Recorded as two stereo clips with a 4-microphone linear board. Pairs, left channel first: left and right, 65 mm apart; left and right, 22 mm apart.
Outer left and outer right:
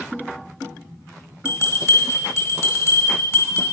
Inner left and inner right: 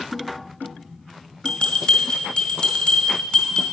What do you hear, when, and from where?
1.4 s a bell: 50° left (ahead or behind), 1.7 m